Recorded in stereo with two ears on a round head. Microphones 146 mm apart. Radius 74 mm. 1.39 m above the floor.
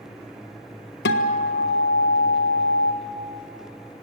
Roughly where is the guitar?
Left.